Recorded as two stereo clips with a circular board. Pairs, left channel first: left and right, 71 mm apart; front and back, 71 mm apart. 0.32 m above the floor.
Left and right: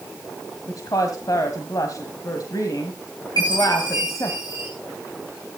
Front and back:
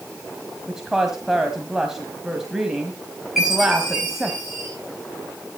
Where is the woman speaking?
95° left, 1.6 m.